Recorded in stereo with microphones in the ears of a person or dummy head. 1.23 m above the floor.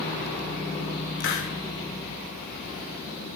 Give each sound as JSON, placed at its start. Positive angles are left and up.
{"t": 1.2, "sound": "a hiss", "side_deg": 60, "distance_m": 1.1}